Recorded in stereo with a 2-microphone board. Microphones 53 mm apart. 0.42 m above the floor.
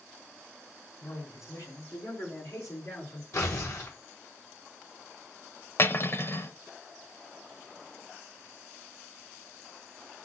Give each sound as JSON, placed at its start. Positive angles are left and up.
{"t": 1.0, "sound": "a man speaking", "side_deg": 75, "distance_m": 3.0}
{"t": 3.3, "sound": "tearing paper", "side_deg": 60, "distance_m": 6.0}
{"t": 5.8, "sound": "cutlery clinking", "side_deg": 50, "distance_m": 0.8}